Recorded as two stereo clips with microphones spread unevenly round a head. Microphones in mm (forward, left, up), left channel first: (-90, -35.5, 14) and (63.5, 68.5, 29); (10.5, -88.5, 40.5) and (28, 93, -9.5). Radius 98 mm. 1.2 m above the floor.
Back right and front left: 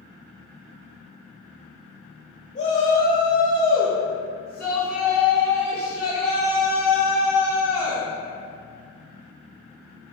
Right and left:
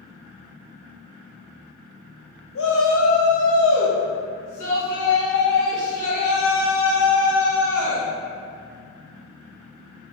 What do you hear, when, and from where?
2.5 s a shout: 105° right, 1.1 m; by 8.0 s 50° right, 4 m